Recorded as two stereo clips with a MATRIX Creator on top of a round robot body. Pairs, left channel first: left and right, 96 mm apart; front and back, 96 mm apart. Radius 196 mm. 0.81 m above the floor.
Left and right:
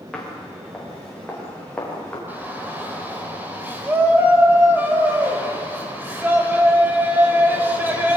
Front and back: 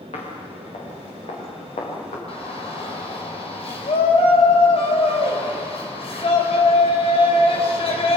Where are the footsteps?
5° left, 6.5 m; by 2.2 s 10° left, 8 m.